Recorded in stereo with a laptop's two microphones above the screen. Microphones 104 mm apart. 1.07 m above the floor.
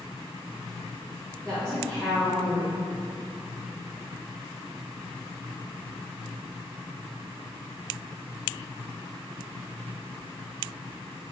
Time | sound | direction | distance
1.4 | a woman speaking | 5° right (ahead or behind) | 1.2 m